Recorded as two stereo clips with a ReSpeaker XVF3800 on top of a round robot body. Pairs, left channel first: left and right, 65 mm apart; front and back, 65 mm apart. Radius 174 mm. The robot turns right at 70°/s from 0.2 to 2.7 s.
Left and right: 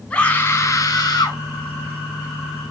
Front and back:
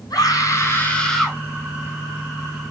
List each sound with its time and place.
0.1 s a scream: 20° left, 4.5 m; by 1.4 s 105° left, 4.5 m